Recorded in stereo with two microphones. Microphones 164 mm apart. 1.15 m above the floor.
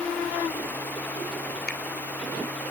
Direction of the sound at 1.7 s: 85° left.